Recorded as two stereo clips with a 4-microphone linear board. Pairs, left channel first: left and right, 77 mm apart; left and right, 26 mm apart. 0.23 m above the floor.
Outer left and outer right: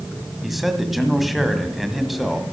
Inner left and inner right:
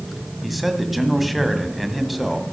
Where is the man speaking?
Centre (ahead or behind), 1.8 m.